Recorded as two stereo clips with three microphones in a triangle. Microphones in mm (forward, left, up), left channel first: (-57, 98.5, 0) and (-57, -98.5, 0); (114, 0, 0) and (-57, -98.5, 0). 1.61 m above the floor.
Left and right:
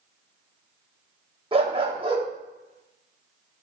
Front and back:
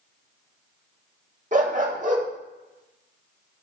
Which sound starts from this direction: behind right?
A dog barking, at 1.5 s.